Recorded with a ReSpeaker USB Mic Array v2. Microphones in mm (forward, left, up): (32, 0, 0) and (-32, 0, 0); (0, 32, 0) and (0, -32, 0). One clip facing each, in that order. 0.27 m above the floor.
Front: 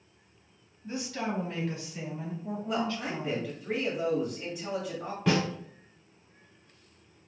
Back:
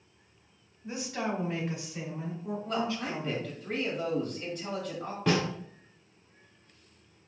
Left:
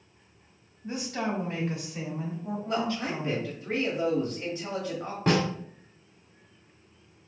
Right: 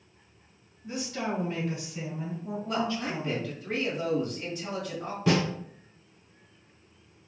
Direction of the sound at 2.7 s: 65° left.